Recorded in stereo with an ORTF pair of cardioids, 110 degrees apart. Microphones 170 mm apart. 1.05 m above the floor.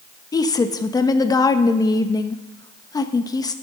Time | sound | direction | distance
0.3 | a woman speaking | 20° left | 0.9 m